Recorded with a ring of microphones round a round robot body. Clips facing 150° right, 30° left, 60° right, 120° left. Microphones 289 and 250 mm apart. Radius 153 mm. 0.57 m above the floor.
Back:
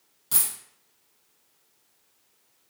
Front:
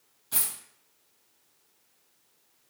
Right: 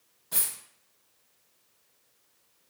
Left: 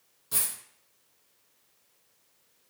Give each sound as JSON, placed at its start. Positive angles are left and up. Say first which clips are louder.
{"t": 0.3, "sound": "a dropped coin", "louder": "back 1 dB, left 1 dB", "azimuth_deg": -165, "distance_m": 1.2}